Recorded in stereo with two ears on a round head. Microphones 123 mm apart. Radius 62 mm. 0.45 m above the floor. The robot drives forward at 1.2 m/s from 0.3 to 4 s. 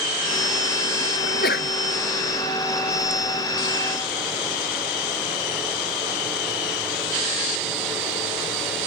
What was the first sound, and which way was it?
A sneeze, 85° left.